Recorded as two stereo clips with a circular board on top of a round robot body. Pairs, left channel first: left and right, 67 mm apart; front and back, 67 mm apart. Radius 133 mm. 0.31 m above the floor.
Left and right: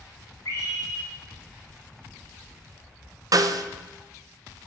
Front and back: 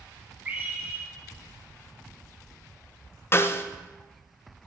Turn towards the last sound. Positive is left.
turn(degrees=-55)